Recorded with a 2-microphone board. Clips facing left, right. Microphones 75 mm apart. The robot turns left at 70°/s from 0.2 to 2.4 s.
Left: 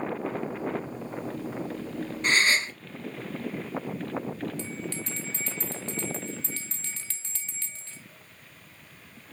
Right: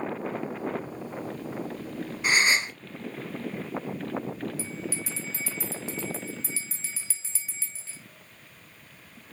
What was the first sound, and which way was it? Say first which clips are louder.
A gasp: even; 10° right (ahead or behind).